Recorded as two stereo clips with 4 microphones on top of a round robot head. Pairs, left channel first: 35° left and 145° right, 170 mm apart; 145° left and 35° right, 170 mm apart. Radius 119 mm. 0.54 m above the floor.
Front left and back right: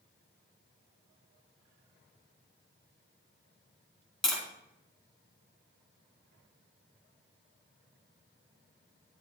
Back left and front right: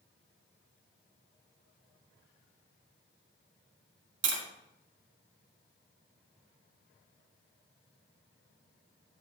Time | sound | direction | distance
4.2 | tapping | 55° right | 3 m